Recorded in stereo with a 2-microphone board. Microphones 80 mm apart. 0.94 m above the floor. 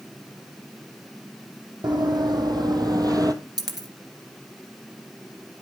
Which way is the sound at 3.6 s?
60° right (ahead or behind).